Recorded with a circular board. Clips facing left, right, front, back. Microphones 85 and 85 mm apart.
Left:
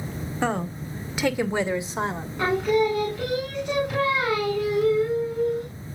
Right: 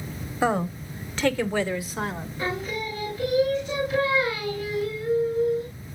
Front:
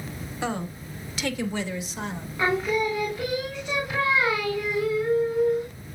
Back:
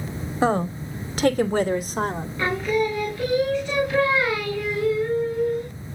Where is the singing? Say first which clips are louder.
Left 10 dB, back 1 dB; 75° left, 3.5 m.